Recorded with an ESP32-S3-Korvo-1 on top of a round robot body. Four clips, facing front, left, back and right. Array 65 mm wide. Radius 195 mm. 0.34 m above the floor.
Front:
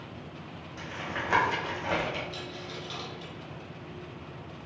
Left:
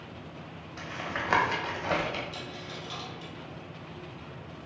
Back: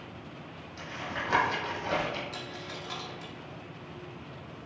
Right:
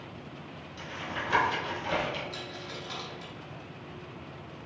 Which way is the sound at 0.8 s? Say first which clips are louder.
Left 2 dB, front 1 dB; 80° left.